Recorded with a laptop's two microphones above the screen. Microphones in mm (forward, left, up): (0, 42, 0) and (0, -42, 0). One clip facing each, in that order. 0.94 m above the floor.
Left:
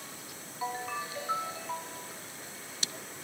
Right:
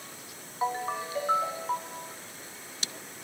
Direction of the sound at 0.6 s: 35° right (ahead or behind).